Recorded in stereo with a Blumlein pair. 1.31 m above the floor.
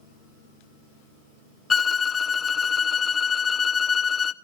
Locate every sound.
1.7 s a violin: 20° left, 0.5 m